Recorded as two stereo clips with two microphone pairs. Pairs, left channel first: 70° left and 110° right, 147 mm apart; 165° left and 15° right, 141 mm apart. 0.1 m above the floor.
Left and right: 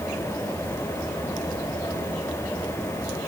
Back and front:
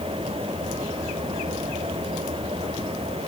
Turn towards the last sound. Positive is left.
No sound to turn to.